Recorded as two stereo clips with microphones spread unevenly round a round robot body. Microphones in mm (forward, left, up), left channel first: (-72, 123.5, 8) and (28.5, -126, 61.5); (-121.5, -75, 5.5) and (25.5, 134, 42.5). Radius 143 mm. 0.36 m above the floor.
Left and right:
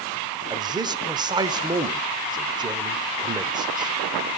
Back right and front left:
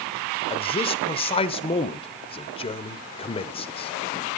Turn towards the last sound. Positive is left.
turn(degrees=-150)